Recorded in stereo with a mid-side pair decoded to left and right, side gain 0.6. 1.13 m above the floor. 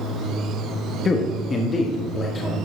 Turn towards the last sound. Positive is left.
turn(degrees=25)